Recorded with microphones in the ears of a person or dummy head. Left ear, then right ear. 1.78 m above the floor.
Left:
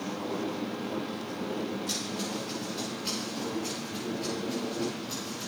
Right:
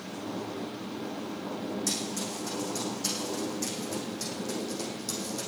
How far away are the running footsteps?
About 7 m.